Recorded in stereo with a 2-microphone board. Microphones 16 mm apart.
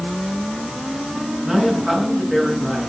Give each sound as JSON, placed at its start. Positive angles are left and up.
{"t": 1.4, "sound": "a man speaking", "side_deg": 0, "distance_m": 7.0}